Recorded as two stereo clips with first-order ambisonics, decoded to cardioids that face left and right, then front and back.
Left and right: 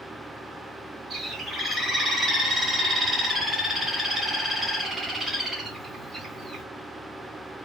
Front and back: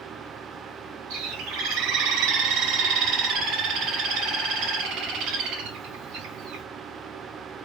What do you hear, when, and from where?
1.1 s a bird: 175° right, 2 m